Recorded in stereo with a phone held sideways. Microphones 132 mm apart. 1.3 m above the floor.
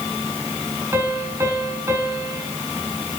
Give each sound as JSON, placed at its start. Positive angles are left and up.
{"t": 0.9, "sound": "a piano", "side_deg": -20, "distance_m": 6.5}